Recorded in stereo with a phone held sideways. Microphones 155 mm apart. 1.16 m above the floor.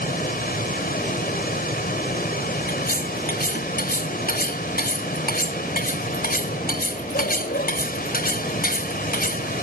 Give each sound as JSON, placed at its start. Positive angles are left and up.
{"t": 0.0, "sound": "a machine running", "side_deg": 80}
{"t": 2.7, "sound": "cutlery clinking", "side_deg": 80}